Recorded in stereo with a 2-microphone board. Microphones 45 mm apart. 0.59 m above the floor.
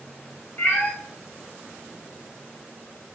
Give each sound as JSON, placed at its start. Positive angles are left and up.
{"t": 0.6, "sound": "a cat meowing", "side_deg": 40, "distance_m": 1.0}